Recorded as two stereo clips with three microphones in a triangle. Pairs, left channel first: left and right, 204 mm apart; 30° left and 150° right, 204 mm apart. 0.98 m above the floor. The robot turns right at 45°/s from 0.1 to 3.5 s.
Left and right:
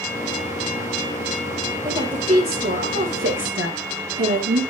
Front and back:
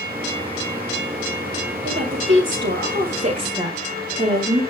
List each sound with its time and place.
1.8 s a woman speaking: 165° right, 3.5 m; by 4.6 s 90° right, 3.5 m